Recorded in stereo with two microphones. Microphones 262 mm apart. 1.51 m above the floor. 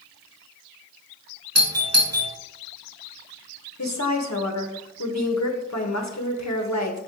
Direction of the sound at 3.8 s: 75° left (ahead or behind).